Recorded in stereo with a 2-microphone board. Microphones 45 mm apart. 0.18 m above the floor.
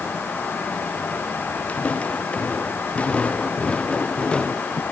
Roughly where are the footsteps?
Left.